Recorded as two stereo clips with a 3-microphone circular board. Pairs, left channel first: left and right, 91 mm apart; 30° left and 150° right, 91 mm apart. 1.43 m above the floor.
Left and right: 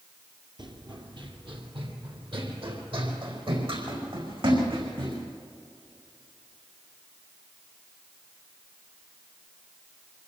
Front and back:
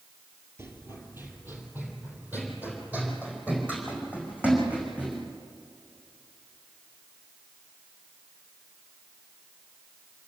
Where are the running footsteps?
95° right, 2 m; by 5.2 s 75° right, 6.5 m.